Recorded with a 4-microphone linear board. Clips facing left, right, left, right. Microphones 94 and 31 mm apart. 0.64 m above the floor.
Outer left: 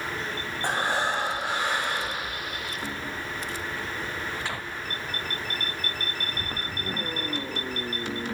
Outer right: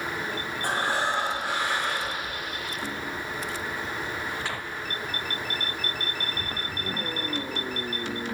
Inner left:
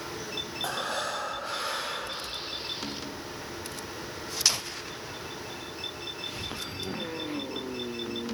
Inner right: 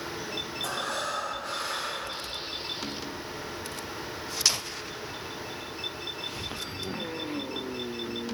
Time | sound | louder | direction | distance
0.6 | breathing | outer left 1 dB, inner left 1 dB | 20° left (ahead or behind) | 3 m